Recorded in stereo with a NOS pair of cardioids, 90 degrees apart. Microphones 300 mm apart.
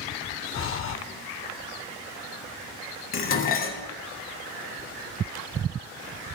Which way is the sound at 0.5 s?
45° left.